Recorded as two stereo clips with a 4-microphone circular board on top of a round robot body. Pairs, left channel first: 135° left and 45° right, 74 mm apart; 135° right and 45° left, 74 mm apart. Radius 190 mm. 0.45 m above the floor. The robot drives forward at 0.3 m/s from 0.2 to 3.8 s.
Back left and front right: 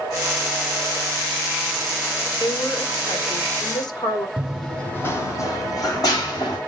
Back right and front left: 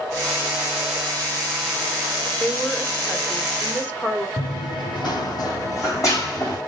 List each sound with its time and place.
2.4 s a woman speaking: 145° left, 1.7 m; by 4.3 s 155° left, 2 m
4.4 s running footsteps: 120° right, 1.2 m; by 6.6 s 170° left, 3.5 m